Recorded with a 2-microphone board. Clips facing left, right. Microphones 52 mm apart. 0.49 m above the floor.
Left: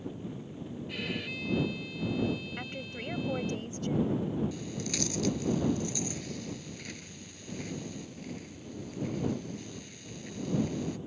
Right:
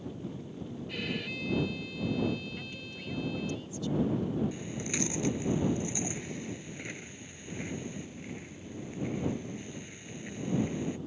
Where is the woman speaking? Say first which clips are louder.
Left 3 dB; 45° left (ahead or behind).